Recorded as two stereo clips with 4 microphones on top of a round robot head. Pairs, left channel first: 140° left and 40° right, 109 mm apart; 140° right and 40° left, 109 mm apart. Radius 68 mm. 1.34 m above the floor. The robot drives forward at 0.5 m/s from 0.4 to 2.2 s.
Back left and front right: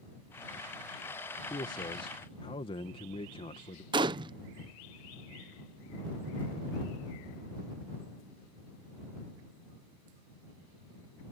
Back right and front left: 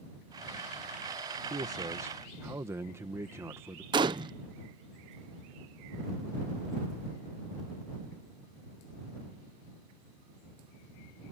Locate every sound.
1.5 s a man speaking: 90° left; by 3.8 s 105° left
3.9 s a gunshot: straight ahead